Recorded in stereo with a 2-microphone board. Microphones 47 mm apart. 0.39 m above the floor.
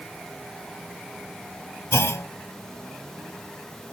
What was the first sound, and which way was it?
A clunk, 80° left.